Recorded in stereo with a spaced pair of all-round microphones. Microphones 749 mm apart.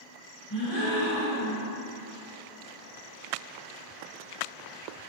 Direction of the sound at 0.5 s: 40° left (ahead or behind).